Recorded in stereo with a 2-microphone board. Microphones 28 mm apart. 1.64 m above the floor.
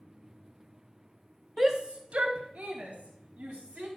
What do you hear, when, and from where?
1.6 s a shout: 5° right (ahead or behind), 0.5 m; by 3.9 s 85° right, 2.5 m